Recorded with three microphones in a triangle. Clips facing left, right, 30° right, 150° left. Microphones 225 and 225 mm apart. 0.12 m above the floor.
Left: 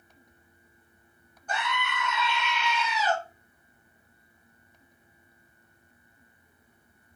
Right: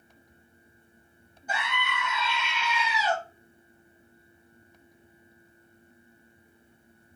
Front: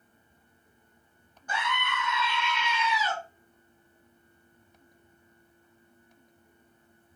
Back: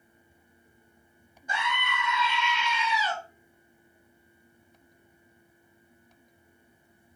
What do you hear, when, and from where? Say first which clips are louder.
1.5 s a scream: left 1 dB, even; 155° right, 1.2 m